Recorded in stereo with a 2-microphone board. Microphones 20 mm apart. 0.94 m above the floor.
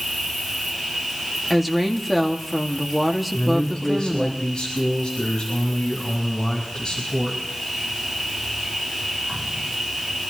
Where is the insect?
10° left (ahead or behind), 7 m.